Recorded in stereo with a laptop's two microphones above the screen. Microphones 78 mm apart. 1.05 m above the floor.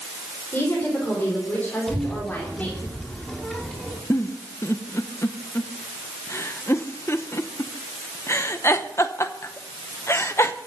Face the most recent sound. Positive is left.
turn(degrees=35)  # may be behind; listen again after turning